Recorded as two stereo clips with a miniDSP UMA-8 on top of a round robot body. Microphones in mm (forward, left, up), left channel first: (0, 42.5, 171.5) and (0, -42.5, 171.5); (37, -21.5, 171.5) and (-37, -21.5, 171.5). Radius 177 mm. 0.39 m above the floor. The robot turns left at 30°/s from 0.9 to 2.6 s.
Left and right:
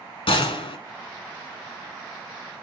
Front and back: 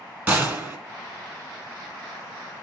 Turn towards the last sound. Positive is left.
turn(degrees=60)